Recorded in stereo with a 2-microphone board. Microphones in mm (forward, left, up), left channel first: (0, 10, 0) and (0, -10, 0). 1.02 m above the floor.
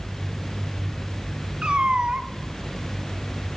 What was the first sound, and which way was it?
A cat meowing, 60° right (ahead or behind).